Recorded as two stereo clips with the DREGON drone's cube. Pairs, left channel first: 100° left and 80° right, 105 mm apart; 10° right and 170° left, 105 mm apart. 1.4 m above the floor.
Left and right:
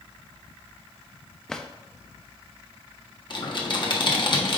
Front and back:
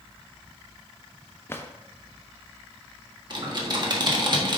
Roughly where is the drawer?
Ahead left.